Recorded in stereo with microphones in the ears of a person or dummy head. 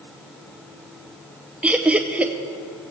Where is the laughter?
Centre (ahead or behind), 0.7 m.